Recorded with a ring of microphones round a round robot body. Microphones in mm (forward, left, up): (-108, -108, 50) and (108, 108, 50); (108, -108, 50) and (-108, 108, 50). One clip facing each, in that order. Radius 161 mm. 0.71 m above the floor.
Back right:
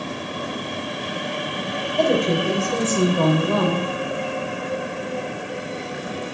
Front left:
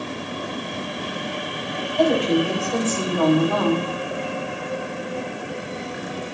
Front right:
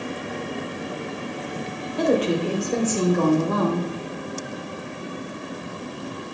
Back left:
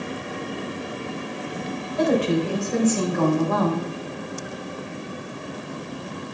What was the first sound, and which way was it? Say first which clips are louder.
A woman speaking: front left 1 dB, even; 95° right.